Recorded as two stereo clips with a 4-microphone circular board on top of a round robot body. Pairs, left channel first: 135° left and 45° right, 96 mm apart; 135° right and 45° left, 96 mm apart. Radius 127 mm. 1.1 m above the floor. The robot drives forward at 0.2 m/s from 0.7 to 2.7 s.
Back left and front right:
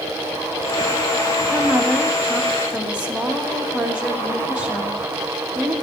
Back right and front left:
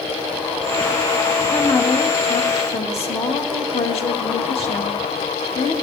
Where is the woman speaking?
115° right, 1.8 m; by 5.7 s 120° right, 1.9 m.